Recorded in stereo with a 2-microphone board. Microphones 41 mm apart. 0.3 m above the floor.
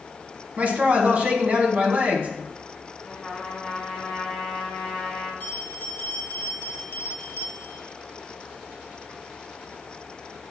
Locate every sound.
0.6 s a man speaking: 40° right (ahead or behind), 1.8 m
3.0 s a trumpet: 5° right (ahead or behind), 2.0 m
5.4 s a bell: 55° left (ahead or behind), 1.2 m